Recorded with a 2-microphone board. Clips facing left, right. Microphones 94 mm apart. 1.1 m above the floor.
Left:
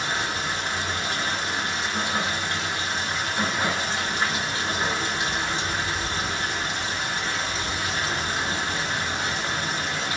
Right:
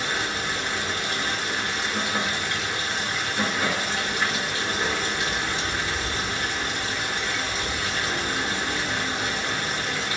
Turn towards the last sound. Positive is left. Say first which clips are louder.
# even
turn(degrees=30)  # may be behind; listen again after turning